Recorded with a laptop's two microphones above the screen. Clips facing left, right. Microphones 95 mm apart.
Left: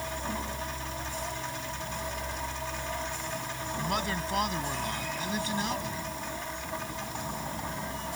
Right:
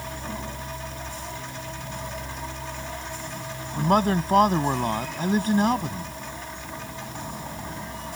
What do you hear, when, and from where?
3.8 s a man speaking: 45° right (ahead or behind)